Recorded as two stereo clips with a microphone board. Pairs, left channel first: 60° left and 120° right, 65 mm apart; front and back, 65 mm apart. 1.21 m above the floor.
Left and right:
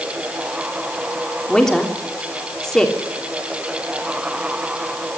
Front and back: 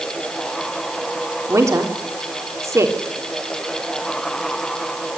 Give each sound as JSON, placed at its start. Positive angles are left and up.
{"t": 1.5, "sound": "a woman speaking", "azimuth_deg": 140, "distance_m": 3.5}